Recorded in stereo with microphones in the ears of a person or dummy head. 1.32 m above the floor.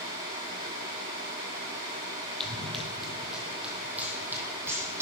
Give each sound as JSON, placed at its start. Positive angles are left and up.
{"t": 2.4, "sound": "running footsteps", "side_deg": 5, "distance_m": 2.5}